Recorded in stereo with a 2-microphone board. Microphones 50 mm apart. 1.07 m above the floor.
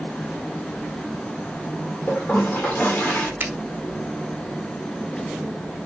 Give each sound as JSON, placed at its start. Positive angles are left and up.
{"t": 2.1, "sound": "a toilet flushing", "side_deg": 30, "distance_m": 2.5}
{"t": 3.4, "sound": "a finger snap", "side_deg": -40, "distance_m": 1.9}